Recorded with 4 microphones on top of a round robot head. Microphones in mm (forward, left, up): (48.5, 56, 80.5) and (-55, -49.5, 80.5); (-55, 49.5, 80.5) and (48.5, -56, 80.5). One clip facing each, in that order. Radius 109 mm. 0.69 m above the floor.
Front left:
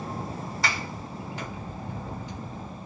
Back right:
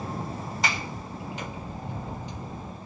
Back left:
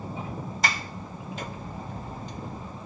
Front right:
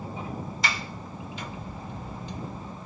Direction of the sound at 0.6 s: 160° left.